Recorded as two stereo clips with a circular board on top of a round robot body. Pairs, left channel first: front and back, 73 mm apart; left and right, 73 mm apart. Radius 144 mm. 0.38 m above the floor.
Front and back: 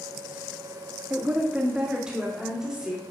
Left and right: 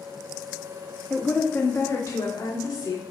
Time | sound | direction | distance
1.1 | a woman speaking | 160° left | 1.3 m